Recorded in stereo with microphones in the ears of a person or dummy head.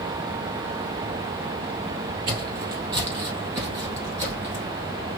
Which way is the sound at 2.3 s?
20° right (ahead or behind).